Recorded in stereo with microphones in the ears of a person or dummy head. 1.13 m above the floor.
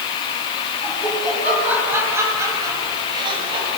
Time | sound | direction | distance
0.8 | laughter | 5° right (ahead or behind) | 8 m